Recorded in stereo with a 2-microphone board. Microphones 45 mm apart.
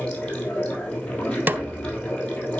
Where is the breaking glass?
I don't hear breaking glass.